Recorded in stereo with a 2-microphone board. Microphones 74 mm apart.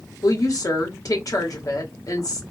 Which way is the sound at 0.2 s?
50° left (ahead or behind).